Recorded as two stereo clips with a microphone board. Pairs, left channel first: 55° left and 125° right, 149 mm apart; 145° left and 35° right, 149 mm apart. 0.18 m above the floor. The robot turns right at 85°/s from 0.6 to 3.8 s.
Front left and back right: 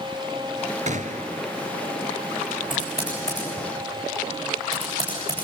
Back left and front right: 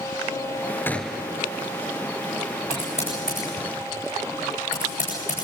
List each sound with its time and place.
0.9 s a gunshot: 140° right, 1.0 m; by 1.4 s 100° right, 1.0 m
2.7 s typing on a keyboard: 75° left, 8.5 m; by 5.4 s 170° left, 8.5 m